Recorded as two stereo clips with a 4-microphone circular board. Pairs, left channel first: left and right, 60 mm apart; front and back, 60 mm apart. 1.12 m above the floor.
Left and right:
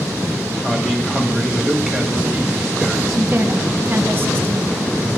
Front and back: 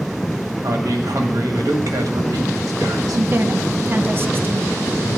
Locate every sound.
0.6 s a man speaking: 175° left, 1.4 m
3.1 s a woman speaking: 135° right, 0.7 m